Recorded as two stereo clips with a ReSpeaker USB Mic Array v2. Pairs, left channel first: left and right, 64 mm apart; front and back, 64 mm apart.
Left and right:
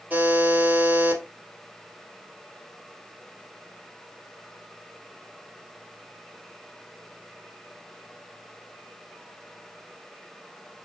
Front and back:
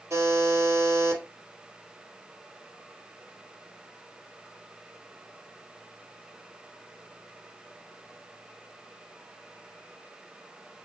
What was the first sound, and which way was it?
A buzzer, 150° right.